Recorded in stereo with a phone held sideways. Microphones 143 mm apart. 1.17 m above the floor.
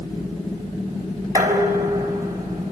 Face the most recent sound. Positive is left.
turn(degrees=-25)  # may be behind; listen again after turning